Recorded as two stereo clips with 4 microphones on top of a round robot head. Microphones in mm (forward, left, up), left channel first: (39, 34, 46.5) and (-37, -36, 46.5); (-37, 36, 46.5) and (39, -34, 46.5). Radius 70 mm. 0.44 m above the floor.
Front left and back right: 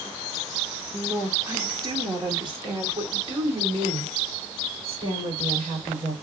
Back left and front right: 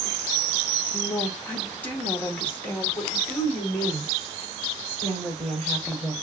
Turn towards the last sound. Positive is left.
turn(degrees=-150)